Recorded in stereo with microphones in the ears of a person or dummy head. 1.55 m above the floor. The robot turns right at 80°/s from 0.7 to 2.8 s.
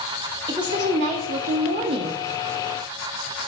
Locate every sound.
0.5 s a woman speaking: 150° right, 0.5 m; by 2.2 s 25° right, 0.5 m